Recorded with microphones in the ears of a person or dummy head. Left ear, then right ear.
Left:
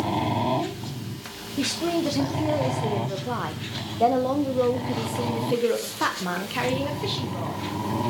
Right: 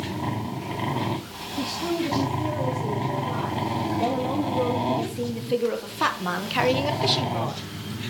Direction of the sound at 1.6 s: 80° left.